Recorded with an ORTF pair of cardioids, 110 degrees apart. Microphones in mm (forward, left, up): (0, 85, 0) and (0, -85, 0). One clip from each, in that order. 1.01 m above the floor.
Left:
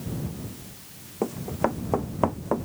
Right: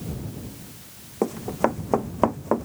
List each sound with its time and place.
1.2 s running footsteps: 20° right; by 2.7 s 30° right